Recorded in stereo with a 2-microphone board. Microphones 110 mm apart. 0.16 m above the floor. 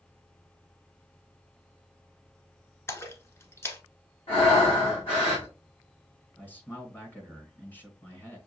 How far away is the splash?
About 1.0 m.